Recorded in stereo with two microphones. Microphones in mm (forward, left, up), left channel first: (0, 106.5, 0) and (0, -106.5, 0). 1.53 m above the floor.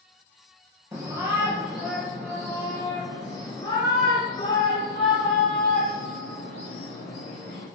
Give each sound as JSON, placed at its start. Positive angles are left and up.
{"t": 0.9, "sound": "a shout", "side_deg": -15, "distance_m": 1.7}